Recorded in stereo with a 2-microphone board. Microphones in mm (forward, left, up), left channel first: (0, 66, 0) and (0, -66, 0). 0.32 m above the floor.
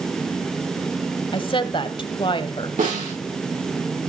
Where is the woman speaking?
40° left (ahead or behind), 1.4 m.